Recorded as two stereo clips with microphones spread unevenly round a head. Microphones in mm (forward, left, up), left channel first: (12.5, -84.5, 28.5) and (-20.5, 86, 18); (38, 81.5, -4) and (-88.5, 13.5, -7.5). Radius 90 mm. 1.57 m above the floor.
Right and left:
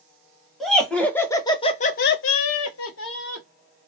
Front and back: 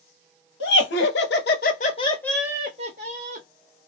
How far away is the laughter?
About 1.0 m.